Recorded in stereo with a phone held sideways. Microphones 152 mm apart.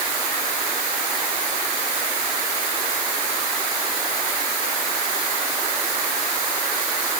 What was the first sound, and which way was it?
Only background noise.